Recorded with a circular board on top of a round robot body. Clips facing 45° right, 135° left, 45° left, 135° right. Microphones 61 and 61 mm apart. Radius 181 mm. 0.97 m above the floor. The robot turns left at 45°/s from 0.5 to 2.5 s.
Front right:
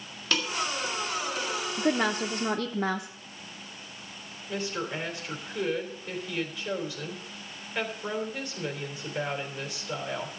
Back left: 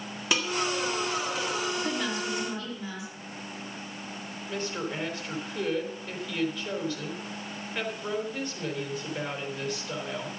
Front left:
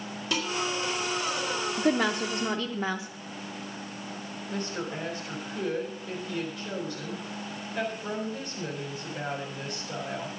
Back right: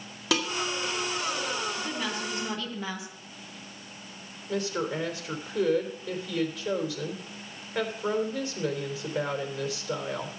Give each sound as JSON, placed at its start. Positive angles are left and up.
{"t": 0.3, "sound": "dishes clattering", "azimuth_deg": -150, "distance_m": 2.5}
{"t": 1.8, "sound": "a woman speaking", "azimuth_deg": 10, "distance_m": 1.2}
{"t": 4.5, "sound": "a woman speaking", "azimuth_deg": -135, "distance_m": 3.5}